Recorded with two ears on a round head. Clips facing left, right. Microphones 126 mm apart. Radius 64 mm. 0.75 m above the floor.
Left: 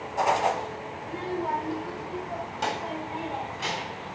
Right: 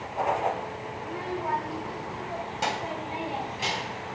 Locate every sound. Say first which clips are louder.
1.0 s a child speaking: left 2 dB; 35° left (ahead or behind), 1.7 m; by 4.0 s 15° right (ahead or behind), 4 m